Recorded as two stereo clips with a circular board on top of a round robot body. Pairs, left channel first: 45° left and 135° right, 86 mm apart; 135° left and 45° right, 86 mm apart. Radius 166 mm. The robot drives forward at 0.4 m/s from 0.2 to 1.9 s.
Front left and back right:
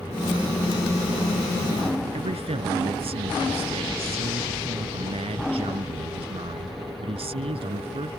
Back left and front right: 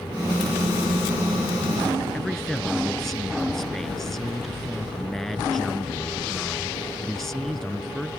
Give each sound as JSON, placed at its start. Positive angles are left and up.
{"t": 2.1, "sound": "a man speaking", "azimuth_deg": -140}